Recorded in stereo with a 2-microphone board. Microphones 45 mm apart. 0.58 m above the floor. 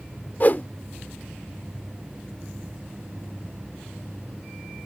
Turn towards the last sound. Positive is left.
turn(degrees=40)  # may be behind; listen again after turning